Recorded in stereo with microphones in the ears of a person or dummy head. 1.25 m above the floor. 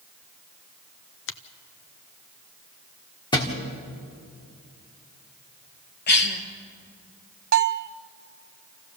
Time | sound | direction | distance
1.3 | a finger snap | 60° left (ahead or behind) | 0.7 m
3.3 | a thud | 20° left (ahead or behind) | 1.7 m
6.1 | a cough | 50° left (ahead or behind) | 1.7 m
7.5 | a bell | 55° right (ahead or behind) | 0.5 m